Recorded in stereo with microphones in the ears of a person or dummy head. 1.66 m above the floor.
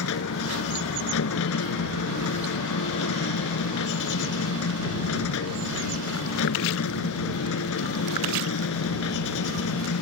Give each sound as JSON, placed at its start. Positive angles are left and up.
{"t": 0.0, "sound": "a machine running", "side_deg": 70}